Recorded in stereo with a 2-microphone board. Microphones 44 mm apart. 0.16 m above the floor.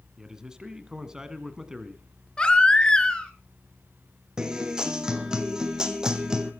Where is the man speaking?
15° right (ahead or behind), 1.5 m.